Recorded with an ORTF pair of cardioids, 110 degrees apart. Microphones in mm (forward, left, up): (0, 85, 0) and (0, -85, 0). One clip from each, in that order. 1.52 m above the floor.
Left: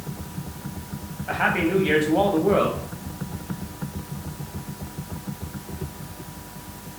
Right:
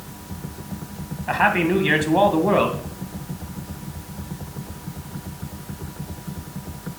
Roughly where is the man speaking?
Ahead right.